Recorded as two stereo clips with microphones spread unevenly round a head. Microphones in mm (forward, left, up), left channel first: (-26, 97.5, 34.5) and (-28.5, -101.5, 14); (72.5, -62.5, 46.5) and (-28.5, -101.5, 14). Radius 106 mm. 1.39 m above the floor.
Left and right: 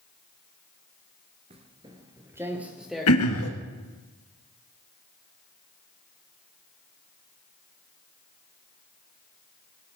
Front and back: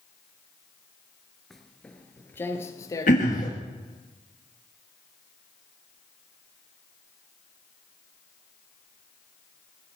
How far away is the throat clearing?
About 1.9 m.